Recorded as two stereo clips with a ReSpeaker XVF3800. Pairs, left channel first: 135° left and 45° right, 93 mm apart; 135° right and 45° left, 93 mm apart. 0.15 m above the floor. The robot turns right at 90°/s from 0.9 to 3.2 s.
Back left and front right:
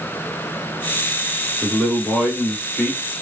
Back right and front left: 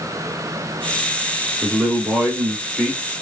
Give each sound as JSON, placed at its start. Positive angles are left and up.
{"t": 1.6, "sound": "a man speaking", "azimuth_deg": 40, "distance_m": 1.0}